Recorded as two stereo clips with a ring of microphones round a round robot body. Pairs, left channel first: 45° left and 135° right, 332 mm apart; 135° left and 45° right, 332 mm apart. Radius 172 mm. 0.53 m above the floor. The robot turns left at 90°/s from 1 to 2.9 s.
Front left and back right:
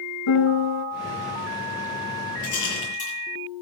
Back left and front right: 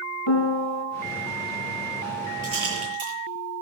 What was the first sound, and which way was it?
A piano, 90° left.